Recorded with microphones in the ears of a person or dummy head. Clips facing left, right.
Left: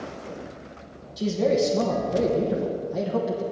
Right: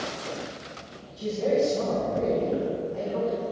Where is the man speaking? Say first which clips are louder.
Left 2 dB; 70° left (ahead or behind), 1.2 m.